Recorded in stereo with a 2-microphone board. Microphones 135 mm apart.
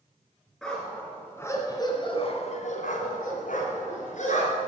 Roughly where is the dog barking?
Centre.